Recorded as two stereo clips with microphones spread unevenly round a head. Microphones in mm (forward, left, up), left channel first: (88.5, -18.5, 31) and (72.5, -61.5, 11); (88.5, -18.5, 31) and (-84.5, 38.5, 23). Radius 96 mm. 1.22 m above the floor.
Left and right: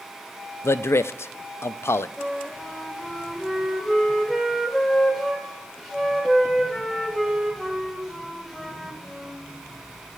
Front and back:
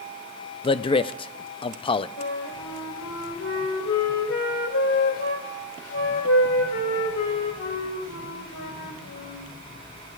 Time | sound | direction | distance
0.6 | a man speaking | 35° left | 0.5 m
2.2 | a flute | 15° right | 2.5 m